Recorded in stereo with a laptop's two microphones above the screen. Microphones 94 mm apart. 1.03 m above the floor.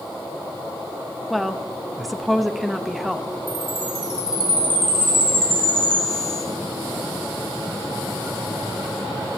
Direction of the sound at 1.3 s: Centre (ahead or behind).